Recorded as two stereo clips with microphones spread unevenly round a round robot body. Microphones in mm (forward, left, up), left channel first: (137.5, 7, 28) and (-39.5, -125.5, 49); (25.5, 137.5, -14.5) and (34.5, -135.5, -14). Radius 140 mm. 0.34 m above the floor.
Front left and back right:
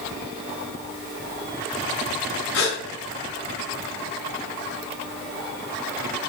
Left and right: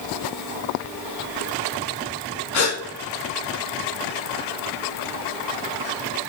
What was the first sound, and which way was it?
A gasp, 65° left.